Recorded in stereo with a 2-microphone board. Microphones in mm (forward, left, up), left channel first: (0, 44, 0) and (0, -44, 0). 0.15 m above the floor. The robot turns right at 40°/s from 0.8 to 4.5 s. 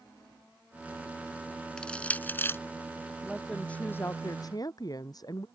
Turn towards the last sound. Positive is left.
turn(degrees=45)